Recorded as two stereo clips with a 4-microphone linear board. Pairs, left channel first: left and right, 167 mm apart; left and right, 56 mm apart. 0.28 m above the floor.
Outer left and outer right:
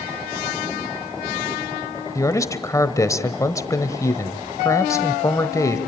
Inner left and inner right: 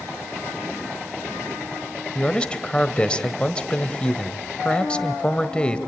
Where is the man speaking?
20° left (ahead or behind), 1.2 m.